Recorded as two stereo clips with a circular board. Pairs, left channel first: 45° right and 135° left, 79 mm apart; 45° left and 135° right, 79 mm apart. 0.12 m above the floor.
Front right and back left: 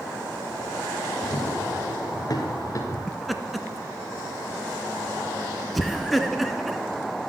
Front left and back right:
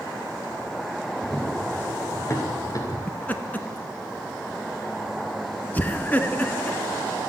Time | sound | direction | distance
1.2 | running footsteps | 25° right | 3.5 m
3.1 | laughter | 45° left | 1.1 m